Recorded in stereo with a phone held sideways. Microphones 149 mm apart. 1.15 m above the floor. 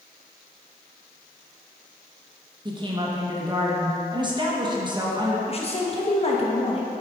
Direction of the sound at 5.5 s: 40° left (ahead or behind).